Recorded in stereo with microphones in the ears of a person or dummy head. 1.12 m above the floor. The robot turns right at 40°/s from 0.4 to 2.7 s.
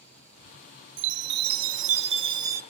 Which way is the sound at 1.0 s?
80° right.